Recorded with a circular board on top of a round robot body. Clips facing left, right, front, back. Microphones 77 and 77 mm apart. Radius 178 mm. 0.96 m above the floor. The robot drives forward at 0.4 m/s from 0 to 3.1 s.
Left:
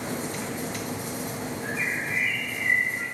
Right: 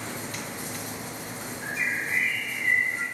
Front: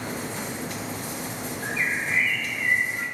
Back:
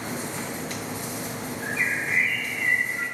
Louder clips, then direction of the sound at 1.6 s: Right 2 dB, even; 120° right.